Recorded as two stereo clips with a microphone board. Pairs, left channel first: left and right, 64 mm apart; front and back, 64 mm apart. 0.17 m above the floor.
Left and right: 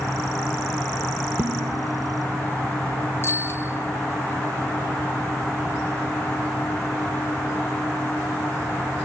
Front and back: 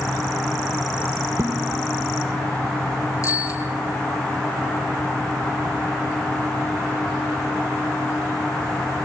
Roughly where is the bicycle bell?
Ahead left.